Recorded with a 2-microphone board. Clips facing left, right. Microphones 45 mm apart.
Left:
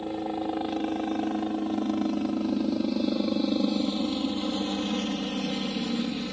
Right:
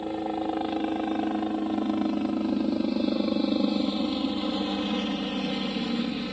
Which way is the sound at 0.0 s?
10° right (ahead or behind).